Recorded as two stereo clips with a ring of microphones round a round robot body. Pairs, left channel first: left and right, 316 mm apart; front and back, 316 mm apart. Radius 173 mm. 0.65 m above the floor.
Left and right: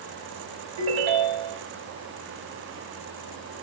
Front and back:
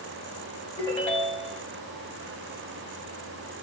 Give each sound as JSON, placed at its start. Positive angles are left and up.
{"t": 0.8, "sound": "a ringtone", "azimuth_deg": -85, "distance_m": 2.0}